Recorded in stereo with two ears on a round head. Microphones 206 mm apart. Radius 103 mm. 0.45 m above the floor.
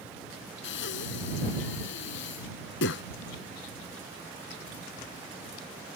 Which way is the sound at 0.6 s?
55° left (ahead or behind).